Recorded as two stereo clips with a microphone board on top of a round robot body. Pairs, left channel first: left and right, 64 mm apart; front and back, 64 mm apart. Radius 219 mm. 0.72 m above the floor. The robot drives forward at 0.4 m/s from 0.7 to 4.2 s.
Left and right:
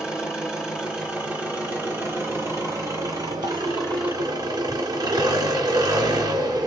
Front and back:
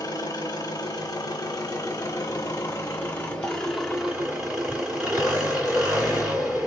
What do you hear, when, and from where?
0.0 s an engine running: 20° right, 1.3 m; by 6.7 s 115° right, 0.6 m